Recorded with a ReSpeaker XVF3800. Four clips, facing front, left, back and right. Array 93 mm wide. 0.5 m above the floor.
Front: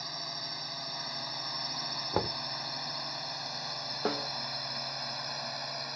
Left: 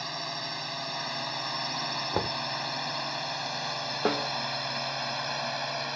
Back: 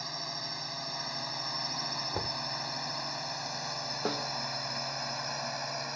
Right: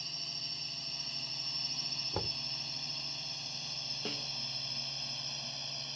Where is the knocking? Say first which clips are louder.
Left 9 dB, front 7 dB; 45° left.